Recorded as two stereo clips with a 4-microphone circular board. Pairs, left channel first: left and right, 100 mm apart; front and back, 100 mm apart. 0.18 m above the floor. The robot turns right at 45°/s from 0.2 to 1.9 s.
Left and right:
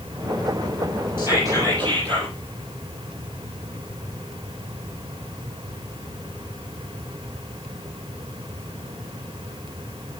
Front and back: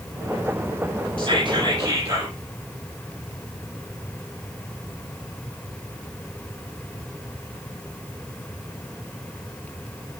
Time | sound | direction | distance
1.2 | whispering | 155° right | 5 m